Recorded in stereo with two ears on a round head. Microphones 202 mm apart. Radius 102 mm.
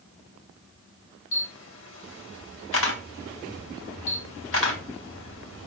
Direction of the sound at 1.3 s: 60° left (ahead or behind).